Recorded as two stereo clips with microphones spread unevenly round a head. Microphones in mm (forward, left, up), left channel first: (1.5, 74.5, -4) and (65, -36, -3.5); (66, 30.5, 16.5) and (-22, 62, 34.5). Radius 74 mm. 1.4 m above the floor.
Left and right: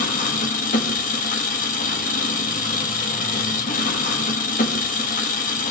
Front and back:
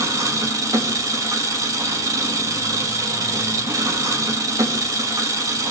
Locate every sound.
0.0 s an engine running: 110° left, 1.5 m